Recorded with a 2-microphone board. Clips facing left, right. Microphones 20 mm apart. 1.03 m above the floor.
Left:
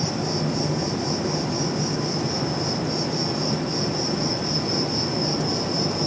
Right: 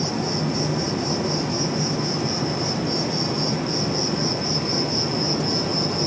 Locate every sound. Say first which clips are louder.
0.0 s an insect: right 1 dB; 35° right (ahead or behind), 0.9 m